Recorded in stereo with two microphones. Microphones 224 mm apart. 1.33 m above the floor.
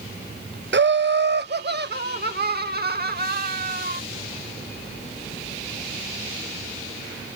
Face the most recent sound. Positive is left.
turn(degrees=-45)  # may be behind; listen again after turning